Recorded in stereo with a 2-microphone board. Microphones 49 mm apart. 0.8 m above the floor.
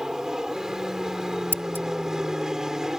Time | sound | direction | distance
0.0 | an aircraft | 10° right (ahead or behind) | ?
1.5 | scissors | 45° right (ahead or behind) | ?